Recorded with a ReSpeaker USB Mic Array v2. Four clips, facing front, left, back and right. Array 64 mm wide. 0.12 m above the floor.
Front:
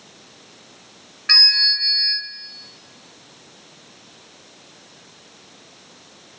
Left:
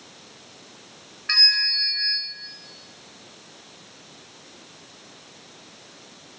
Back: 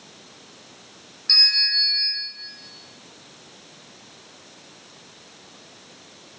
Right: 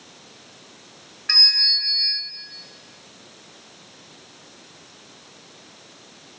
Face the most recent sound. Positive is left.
turn(degrees=5)